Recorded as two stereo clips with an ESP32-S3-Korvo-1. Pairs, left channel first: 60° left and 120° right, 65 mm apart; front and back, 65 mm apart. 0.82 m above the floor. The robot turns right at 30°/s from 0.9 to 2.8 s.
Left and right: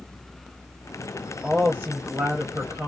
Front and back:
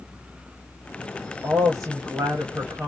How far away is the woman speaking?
About 0.8 m.